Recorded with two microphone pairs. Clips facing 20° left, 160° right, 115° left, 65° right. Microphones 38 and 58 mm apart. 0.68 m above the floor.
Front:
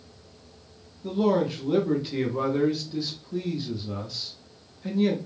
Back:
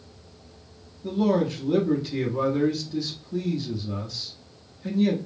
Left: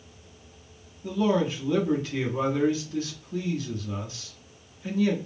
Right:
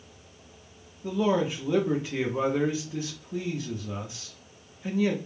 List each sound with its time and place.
1.0 s a man speaking: 35° right, 0.7 m